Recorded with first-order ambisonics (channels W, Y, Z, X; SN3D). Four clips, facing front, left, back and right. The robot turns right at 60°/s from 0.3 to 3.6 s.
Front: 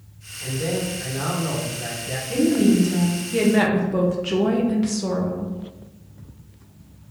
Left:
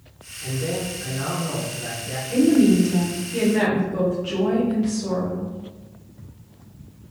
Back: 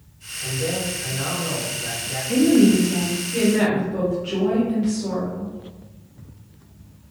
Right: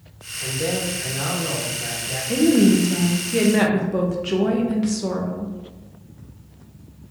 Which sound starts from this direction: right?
A man speaking, at 0.4 s.